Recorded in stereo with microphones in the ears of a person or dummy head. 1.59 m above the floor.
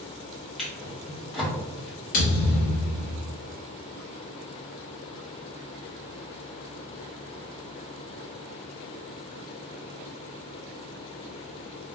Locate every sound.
0.6 s a drawer: centre (ahead or behind), 1.3 m
2.1 s a thud: 45° left (ahead or behind), 1.4 m